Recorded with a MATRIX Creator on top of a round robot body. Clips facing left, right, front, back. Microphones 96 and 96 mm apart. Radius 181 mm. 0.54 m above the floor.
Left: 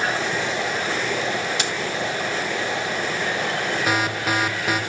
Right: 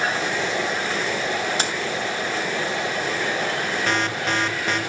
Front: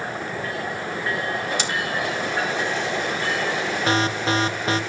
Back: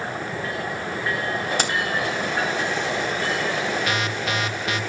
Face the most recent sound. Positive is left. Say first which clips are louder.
# left 1 dB, front 4 dB
turn(degrees=15)